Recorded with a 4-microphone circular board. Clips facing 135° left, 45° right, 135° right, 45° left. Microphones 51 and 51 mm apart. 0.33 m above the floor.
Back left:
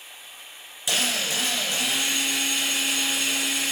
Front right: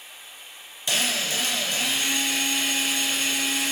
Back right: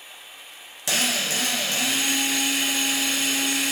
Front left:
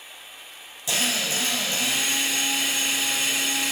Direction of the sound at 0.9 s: 145° right.